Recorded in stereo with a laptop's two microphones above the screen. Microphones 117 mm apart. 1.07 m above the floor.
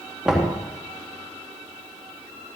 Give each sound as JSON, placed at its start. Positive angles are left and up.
{"t": 0.2, "sound": "knocking", "side_deg": -5, "distance_m": 1.4}